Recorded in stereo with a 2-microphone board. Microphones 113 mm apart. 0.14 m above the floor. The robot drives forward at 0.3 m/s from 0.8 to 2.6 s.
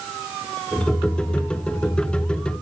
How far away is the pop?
I don't hear a pop.